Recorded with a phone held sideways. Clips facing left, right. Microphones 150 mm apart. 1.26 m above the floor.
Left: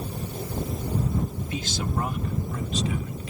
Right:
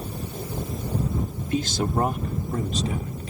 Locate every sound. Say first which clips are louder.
1.5 s a man speaking: right 10 dB; 50° right (ahead or behind); by 3.3 s 40° right (ahead or behind)